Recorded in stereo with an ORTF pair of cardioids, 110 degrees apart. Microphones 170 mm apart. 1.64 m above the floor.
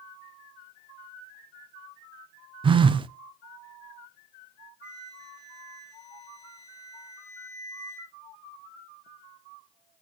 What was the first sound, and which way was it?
A phone buzzing, 30° right.